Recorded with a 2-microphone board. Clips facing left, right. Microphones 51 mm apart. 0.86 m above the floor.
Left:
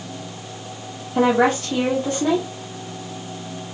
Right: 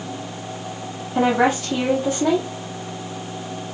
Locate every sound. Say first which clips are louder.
1.1 s a woman speaking: left 1 dB; 10° right (ahead or behind), 1.5 m